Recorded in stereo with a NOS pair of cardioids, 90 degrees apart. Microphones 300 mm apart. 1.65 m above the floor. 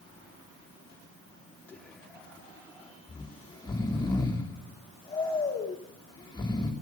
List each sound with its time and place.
1.7 s whispering: 5° left, 4 m
3.1 s snoring: 15° left, 3.5 m